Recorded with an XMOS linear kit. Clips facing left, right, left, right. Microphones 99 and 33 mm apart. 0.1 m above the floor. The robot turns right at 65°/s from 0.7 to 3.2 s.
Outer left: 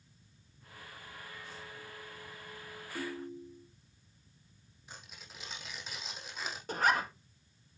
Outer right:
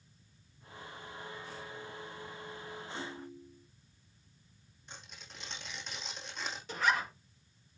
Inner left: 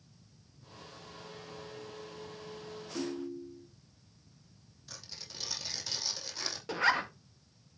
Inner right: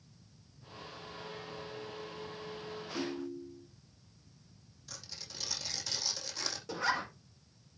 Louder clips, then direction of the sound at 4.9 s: Even, even; 5° left (ahead or behind).